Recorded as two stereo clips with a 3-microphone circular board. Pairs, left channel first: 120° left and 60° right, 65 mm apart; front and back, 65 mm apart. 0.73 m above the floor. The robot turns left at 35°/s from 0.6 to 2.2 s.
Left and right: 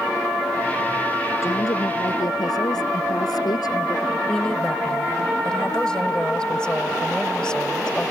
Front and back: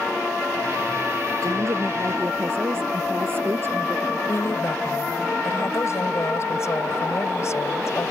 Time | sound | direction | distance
1.4 | a woman speaking | 155° left | ?
4.3 | a woman speaking | 40° left | ?